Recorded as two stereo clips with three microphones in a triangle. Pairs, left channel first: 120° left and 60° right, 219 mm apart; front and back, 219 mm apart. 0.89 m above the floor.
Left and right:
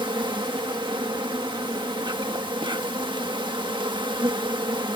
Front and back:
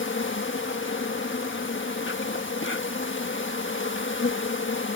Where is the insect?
5° left.